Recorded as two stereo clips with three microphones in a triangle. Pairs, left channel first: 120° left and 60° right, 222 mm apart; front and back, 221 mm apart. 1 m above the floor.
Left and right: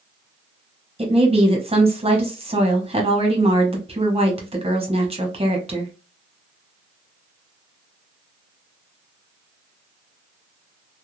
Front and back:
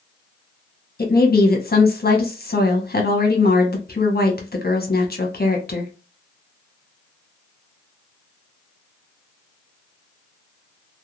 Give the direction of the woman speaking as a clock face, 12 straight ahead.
12 o'clock.